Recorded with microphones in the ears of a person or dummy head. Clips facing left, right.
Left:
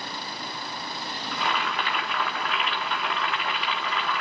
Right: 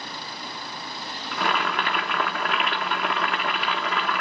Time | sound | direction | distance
1.3 | boiling | 45° right (ahead or behind) | 1.4 m